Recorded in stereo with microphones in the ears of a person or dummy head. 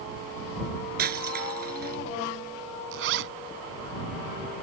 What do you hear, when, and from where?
1.0 s breaking glass: 50° right (ahead or behind)
2.9 s a zipper: 65° right (ahead or behind)